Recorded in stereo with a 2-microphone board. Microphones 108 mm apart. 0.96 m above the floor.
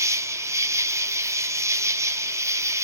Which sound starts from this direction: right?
An insect, at 0.0 s.